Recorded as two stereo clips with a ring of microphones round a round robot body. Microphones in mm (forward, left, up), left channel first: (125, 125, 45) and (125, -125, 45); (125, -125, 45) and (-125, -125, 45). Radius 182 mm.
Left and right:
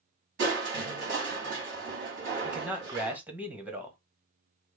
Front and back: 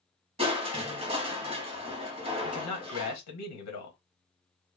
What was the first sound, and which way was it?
Crushing, 120° right.